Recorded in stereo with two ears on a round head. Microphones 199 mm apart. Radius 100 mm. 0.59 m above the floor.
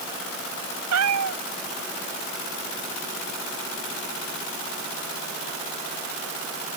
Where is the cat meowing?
75° right (ahead or behind).